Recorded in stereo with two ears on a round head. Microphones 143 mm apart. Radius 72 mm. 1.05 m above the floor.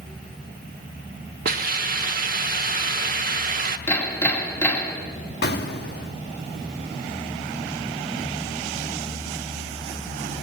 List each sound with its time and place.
1.4 s a hiss: 55° right (ahead or behind), 0.9 m
3.9 s hammering: 15° left (ahead or behind), 2 m
5.4 s an explosion: 70° left (ahead or behind), 1.1 m